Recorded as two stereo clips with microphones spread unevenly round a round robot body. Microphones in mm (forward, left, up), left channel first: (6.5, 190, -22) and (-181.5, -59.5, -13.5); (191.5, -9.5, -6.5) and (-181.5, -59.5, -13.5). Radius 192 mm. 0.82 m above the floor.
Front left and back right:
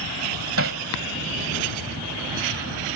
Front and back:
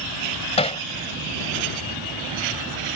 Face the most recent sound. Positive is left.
turn(degrees=-65)